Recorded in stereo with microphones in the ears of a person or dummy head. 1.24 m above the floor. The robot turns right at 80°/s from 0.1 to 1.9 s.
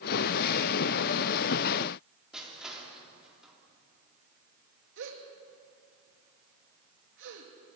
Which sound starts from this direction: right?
A gasp, at 5.0 s.